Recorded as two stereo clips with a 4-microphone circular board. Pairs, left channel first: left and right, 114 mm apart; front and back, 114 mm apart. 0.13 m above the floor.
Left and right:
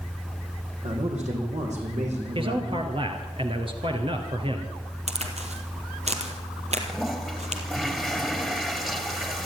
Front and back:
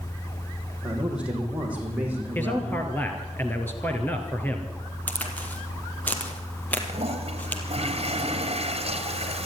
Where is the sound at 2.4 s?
70° right, 2.5 m.